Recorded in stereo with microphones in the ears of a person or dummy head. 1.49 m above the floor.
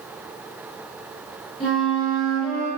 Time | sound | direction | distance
1.6 | a flute | centre (ahead or behind) | 1.0 m